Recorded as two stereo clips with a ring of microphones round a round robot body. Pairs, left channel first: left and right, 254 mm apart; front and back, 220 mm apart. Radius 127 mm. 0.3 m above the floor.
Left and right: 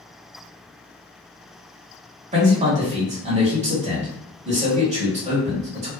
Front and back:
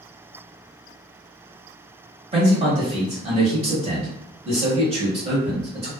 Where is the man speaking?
135° right, 1.1 m.